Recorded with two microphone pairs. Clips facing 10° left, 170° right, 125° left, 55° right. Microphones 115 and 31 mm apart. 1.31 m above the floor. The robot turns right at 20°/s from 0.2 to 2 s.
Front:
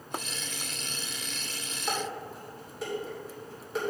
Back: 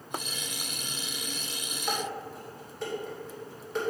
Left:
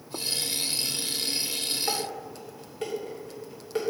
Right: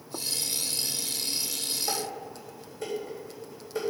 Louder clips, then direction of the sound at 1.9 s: Even, left 2 dB; 90° left.